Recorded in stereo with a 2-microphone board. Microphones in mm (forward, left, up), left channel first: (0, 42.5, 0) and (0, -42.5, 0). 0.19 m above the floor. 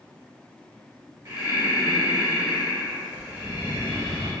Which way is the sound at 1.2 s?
30° right (ahead or behind).